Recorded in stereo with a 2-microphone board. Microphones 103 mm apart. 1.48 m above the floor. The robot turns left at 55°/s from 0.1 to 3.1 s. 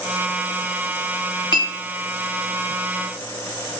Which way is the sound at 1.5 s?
45° left (ahead or behind).